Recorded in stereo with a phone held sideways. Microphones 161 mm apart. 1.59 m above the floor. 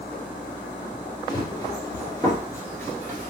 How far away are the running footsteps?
About 1.8 m.